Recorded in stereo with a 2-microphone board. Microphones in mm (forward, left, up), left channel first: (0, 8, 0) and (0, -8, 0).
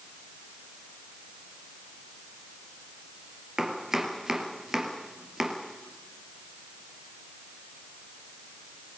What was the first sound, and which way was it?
Chopping, 40° right (ahead or behind).